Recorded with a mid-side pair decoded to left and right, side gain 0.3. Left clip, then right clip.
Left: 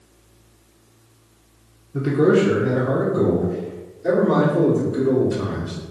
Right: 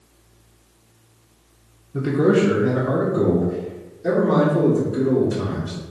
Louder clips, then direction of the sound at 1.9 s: Left 1 dB; 10° right.